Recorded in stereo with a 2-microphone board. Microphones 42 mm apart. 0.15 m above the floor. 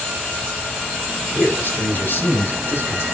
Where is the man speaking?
45° left (ahead or behind), 6 m; by 3.0 s 50° left (ahead or behind), 8 m.